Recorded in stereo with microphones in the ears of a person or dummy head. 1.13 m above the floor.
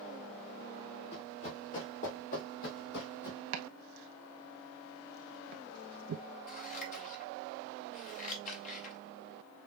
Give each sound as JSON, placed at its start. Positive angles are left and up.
{"t": 1.1, "sound": "running footsteps", "side_deg": 35, "distance_m": 3.5}
{"t": 3.5, "sound": "chopping", "side_deg": -65, "distance_m": 0.8}
{"t": 6.5, "sound": "scissors", "side_deg": 45, "distance_m": 1.8}